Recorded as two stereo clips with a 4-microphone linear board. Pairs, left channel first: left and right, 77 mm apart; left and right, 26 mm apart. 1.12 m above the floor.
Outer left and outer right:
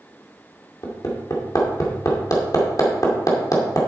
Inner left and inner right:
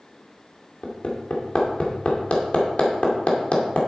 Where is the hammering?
50° left (ahead or behind), 2.5 m.